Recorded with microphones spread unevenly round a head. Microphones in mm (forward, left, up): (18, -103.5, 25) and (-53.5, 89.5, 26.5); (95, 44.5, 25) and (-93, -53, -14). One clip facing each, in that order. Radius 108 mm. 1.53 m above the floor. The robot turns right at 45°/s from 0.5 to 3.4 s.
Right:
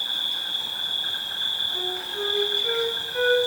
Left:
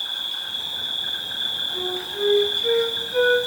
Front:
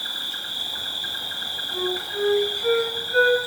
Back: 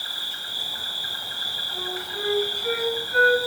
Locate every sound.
0.0 s an insect: 15° left, 1.9 m; by 3.5 s 145° left, 1.9 m
1.7 s a flute: 20° left, 4.5 m; by 3.4 s 95° left, 4.5 m